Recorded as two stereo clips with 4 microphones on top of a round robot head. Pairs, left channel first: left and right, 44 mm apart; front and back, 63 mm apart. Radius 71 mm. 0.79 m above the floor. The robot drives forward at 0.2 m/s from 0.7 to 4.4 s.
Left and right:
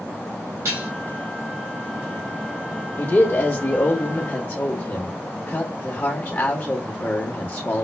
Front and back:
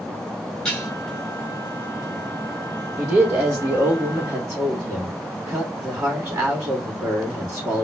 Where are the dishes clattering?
80° right, 2.5 m; by 0.9 s 85° right, 2.5 m.